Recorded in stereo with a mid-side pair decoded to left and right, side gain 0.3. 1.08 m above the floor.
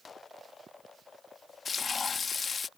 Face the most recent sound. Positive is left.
turn(degrees=55)